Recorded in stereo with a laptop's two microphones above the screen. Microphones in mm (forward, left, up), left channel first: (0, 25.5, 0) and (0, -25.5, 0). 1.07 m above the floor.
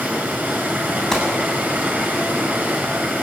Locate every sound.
0.0 s running water: 35° right (ahead or behind), 5.5 m
1.1 s a gunshot: 5° left (ahead or behind), 8 m